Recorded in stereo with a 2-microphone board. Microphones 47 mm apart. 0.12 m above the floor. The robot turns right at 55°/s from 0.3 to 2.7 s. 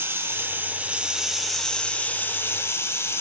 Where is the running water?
60° right, 1.2 m; by 3.2 s 70° left, 1.2 m.